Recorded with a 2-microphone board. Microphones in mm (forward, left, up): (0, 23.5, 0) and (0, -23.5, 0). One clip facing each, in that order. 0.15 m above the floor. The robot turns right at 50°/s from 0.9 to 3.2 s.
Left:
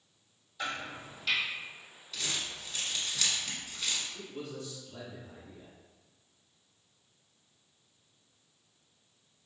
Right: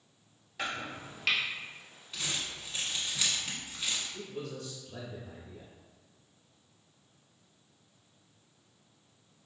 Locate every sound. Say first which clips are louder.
0.6 s chopping: right 1 dB; 70° right (ahead or behind), 1.3 m; by 1.4 s 55° right (ahead or behind), 1.3 m
2.1 s crumpling: even; 25° right (ahead or behind), 1.0 m; by 4.0 s 10° right (ahead or behind), 1.0 m
4.1 s a man speaking: right 1 dB; 40° right (ahead or behind), 1.6 m